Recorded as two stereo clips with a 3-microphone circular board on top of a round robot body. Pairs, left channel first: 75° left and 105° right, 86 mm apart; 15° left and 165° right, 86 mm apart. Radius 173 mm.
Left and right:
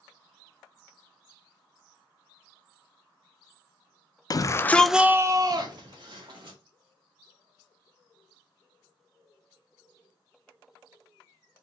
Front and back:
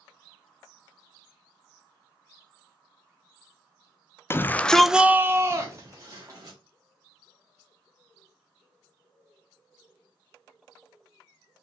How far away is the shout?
About 0.6 m.